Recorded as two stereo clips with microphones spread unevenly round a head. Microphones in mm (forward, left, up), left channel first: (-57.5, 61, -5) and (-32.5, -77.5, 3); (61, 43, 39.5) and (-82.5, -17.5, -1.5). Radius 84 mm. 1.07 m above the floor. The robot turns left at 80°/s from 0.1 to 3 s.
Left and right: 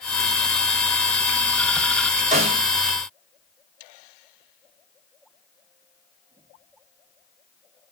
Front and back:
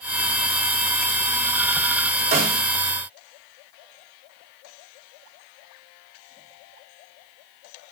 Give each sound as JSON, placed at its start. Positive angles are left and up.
{"t": 2.3, "sound": "a snare drum", "azimuth_deg": -110, "distance_m": 4.5}